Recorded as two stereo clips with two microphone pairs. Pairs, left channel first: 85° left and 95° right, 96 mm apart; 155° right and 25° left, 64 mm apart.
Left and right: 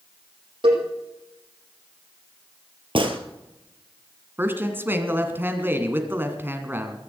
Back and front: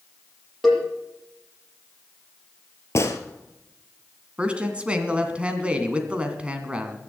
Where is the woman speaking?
40° right, 2 m.